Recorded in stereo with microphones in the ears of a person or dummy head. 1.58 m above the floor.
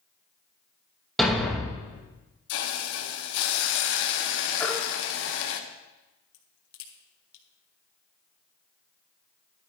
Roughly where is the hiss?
Left.